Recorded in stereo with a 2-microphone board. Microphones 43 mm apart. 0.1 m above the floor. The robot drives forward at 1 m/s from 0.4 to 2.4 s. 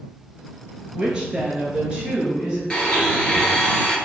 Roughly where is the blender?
Centre.